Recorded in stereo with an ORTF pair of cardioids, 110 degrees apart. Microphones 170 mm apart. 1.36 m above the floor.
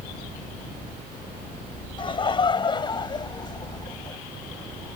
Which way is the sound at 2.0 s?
30° left.